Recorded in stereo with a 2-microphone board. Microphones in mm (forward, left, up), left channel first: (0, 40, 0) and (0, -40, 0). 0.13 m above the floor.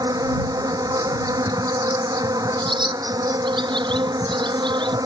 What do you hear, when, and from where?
0.0 s an insect: 50° right (ahead or behind)
2.6 s a bird: 80° right